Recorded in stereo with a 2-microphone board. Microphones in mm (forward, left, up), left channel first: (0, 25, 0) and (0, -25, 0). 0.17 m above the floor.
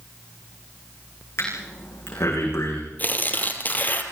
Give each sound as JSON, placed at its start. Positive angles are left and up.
{"t": 1.4, "sound": "breathing", "side_deg": 55, "distance_m": 9.5}
{"t": 3.0, "sound": "tearing paper", "side_deg": 35, "distance_m": 3.0}